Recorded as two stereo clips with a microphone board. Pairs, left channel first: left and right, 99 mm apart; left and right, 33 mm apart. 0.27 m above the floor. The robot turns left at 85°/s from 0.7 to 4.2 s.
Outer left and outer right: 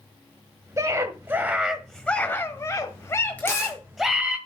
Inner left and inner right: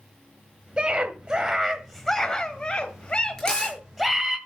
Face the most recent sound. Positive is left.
turn(degrees=95)